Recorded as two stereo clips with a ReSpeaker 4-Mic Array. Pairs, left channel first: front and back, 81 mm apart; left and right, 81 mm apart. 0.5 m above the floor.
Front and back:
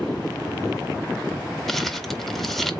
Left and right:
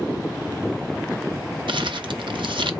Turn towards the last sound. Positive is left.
turn(degrees=-90)